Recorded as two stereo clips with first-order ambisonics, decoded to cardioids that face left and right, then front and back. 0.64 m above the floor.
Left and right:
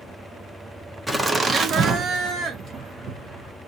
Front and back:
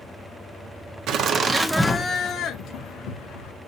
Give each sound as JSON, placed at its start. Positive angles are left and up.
{"t": 1.1, "sound": "laughter", "azimuth_deg": -170, "distance_m": 0.7}